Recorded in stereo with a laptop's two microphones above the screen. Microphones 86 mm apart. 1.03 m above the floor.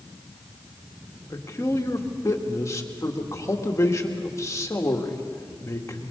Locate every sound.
1.3 s a man speaking: 35° left (ahead or behind), 2 m